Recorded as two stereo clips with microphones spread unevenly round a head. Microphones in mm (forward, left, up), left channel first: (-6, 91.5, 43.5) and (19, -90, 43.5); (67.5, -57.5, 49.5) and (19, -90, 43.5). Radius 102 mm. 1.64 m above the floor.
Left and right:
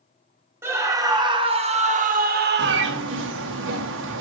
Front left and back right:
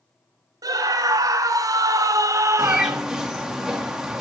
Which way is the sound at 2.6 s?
60° right.